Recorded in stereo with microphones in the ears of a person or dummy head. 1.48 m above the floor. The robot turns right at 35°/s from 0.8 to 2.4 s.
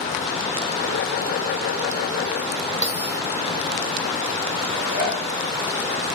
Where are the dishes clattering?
35° right (ahead or behind), 1.9 m.